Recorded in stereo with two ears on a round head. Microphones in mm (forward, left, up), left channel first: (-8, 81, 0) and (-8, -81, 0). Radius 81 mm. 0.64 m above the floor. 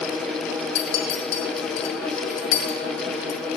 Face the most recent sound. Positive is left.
turn(degrees=65)  # may be behind; listen again after turning